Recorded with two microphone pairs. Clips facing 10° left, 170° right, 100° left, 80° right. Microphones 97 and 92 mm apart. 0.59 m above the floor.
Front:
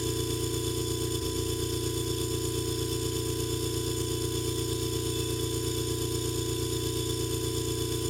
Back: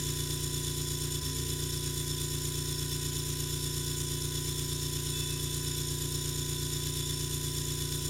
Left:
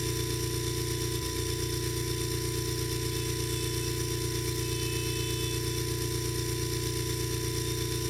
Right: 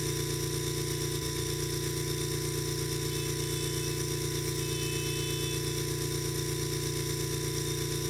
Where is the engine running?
10° left, 1.9 m.